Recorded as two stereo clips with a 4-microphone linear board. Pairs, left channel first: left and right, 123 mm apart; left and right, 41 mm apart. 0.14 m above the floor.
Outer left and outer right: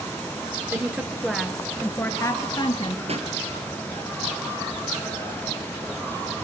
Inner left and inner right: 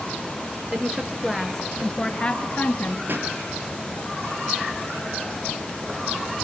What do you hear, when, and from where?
0.7 s a woman speaking: 15° right (ahead or behind), 2.5 m; by 3.0 s 45° left (ahead or behind), 2 m
3.1 s a pop: 55° right (ahead or behind), 3.5 m